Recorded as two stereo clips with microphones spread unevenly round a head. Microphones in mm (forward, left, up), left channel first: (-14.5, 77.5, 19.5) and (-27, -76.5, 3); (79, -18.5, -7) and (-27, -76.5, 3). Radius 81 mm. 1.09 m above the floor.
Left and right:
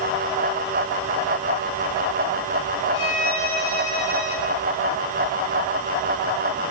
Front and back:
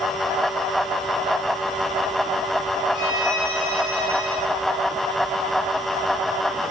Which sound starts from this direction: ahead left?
A violin, at 2.9 s.